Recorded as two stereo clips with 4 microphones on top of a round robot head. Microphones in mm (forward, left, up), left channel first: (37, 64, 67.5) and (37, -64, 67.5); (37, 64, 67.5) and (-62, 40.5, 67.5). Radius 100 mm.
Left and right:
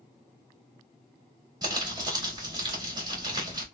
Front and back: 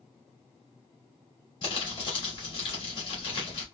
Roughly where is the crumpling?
Ahead right.